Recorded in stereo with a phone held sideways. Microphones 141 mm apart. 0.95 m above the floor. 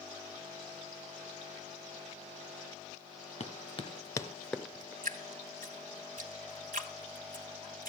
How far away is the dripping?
About 1.5 m.